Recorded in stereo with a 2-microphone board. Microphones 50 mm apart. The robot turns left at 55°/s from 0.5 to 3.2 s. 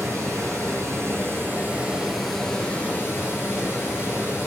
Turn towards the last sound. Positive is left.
turn(degrees=130)